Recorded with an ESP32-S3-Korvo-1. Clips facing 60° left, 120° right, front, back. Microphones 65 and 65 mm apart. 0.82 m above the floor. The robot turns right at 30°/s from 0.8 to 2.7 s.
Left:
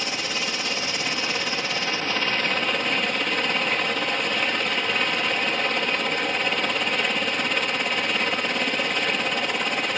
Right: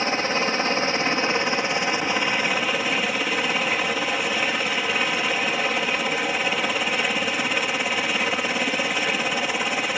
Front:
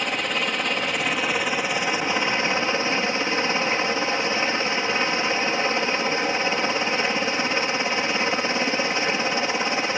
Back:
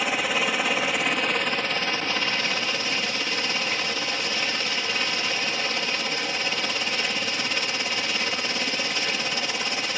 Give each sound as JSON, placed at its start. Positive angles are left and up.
{"t": 0.0, "sound": "a helicopter", "azimuth_deg": -95}